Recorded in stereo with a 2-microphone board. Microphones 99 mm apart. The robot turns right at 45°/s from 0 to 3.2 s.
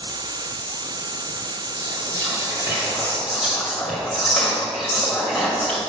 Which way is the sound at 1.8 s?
65° right.